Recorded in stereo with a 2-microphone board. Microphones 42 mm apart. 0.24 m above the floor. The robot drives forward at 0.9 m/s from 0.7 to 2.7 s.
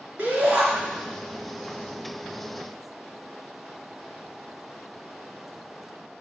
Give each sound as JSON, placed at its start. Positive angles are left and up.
{"t": 0.2, "sound": "a shout", "side_deg": -30, "distance_m": 3.0}